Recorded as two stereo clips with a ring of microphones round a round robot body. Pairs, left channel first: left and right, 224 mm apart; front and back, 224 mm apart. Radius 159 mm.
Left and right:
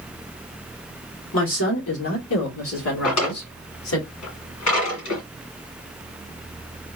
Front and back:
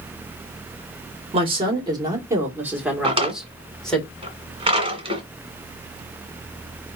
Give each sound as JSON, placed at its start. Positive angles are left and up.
{"t": 1.3, "sound": "a woman speaking", "azimuth_deg": 120, "distance_m": 1.9}
{"t": 3.0, "sound": "a drawer", "azimuth_deg": 115, "distance_m": 2.0}